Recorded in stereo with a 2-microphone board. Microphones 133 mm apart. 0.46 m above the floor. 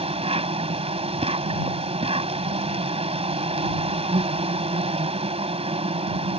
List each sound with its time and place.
0.0 s an insect: 45° right (ahead or behind)